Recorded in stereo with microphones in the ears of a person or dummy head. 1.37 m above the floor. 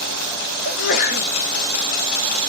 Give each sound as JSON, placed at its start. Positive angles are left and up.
{"t": 0.7, "sound": "a sneeze", "side_deg": 50, "distance_m": 0.8}